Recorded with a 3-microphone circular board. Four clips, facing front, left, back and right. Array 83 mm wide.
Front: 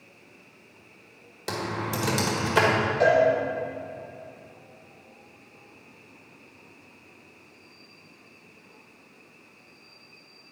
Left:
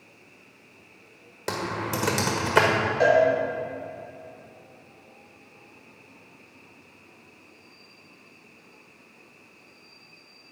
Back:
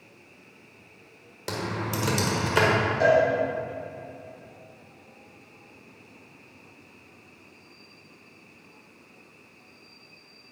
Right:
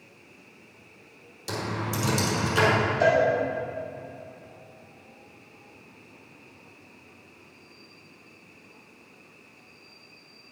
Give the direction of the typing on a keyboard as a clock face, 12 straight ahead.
9 o'clock.